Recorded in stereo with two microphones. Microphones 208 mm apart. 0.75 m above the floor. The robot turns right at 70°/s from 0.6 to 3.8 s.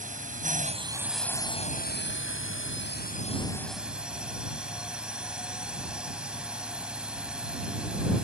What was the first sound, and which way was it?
A drone, 40° right.